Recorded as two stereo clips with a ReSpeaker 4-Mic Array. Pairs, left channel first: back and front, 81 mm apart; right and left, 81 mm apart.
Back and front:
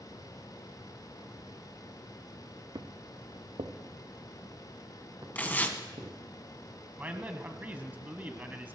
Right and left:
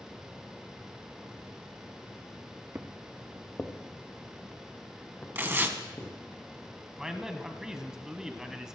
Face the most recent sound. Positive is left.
turn(degrees=20)